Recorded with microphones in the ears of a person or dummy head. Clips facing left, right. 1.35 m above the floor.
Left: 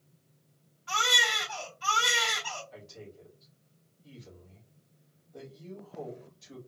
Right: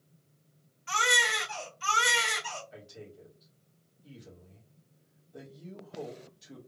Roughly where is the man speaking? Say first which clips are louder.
Even; centre.